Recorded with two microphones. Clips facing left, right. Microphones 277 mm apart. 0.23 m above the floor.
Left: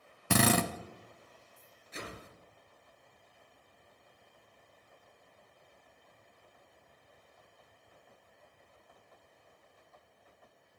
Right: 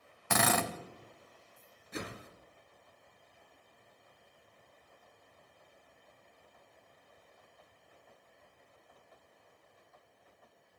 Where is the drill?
35° left (ahead or behind), 0.8 m.